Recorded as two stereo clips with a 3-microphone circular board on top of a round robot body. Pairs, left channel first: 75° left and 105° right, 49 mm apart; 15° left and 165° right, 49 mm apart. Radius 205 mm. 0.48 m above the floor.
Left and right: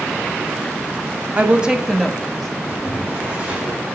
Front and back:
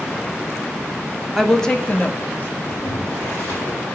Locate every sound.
1.4 s a woman speaking: 80° right, 1.3 m; by 2.6 s straight ahead, 1.8 m
2.7 s boiling: 35° right, 3.5 m